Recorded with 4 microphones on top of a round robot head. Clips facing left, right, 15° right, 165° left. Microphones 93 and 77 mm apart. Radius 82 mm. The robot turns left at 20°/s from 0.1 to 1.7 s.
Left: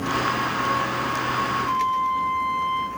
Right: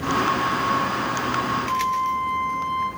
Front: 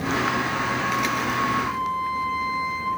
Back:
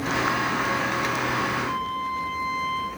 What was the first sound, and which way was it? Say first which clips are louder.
A flute: even, front 2 dB; 55° left.